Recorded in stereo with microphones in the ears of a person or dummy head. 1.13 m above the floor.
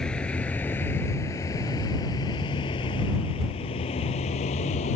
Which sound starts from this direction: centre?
A vehicle, at 0.0 s.